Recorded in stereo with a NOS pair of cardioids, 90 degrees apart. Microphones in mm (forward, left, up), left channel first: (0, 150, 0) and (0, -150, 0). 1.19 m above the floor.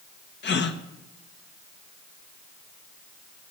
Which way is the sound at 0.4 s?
40° left.